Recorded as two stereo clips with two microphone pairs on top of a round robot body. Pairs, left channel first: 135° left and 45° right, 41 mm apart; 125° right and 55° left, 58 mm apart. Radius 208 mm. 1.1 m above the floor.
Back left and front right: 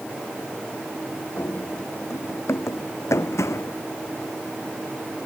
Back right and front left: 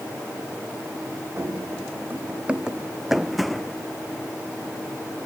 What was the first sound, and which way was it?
Running footsteps, 105° left.